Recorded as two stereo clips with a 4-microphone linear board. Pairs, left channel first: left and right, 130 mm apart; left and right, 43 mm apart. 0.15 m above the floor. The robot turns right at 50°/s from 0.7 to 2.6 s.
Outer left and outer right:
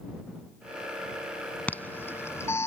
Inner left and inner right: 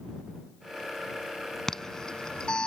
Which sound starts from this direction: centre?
An alarm, at 1.7 s.